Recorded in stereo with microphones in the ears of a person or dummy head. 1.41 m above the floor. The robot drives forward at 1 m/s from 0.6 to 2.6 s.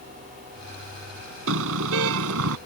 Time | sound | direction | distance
1.5 | a car horn | 70° right (ahead or behind) | ?